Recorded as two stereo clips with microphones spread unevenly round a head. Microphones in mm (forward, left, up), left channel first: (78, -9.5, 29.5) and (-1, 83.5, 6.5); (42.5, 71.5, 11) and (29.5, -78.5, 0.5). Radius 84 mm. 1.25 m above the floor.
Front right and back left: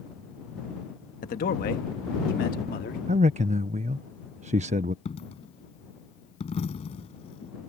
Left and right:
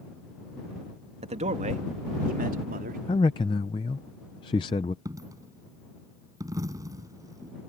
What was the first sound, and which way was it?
A man speaking, 45° right.